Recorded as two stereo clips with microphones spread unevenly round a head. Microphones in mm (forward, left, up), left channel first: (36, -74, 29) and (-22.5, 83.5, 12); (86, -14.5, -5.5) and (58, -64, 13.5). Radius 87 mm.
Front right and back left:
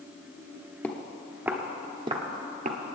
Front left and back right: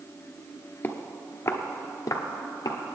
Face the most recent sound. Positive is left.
turn(degrees=80)